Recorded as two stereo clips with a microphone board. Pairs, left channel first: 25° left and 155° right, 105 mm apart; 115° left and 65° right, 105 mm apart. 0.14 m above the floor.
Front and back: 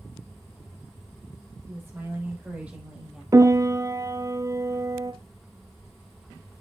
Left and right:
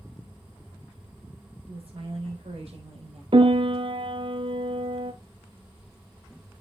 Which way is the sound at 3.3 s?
100° right.